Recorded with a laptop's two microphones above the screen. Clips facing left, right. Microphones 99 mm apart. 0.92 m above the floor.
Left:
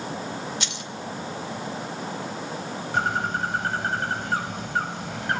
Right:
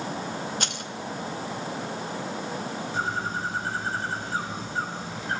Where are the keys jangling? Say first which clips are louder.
Right 2 dB; 50° right (ahead or behind), 2.0 m.